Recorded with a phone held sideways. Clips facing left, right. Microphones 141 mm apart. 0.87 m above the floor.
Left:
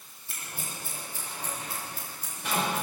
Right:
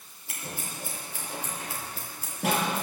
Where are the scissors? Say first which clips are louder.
Right 3 dB; 80° right, 7.5 m.